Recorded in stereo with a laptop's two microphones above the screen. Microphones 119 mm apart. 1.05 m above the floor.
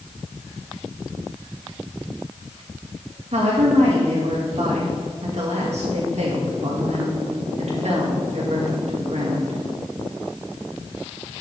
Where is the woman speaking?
65° right (ahead or behind), 1.7 m.